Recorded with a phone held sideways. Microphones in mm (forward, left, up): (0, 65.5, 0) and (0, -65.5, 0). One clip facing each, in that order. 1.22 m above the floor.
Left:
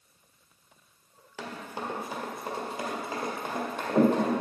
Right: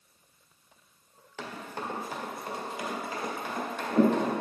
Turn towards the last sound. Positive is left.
turn(degrees=45)  # may be behind; listen again after turning